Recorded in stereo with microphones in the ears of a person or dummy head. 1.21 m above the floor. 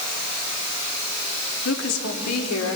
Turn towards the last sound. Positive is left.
turn(degrees=75)  # may be behind; listen again after turning